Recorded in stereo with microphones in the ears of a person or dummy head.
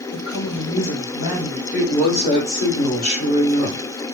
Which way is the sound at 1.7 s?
50° left (ahead or behind).